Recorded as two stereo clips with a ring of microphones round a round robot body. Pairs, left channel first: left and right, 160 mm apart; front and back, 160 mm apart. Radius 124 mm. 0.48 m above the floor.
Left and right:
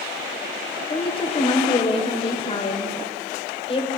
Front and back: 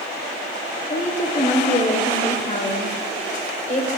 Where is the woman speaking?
35° left, 1.9 m.